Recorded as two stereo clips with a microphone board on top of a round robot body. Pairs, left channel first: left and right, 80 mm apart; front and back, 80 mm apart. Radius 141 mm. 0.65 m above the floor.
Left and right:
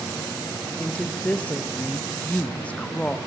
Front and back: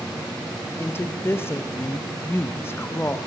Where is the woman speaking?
30° left, 0.5 m.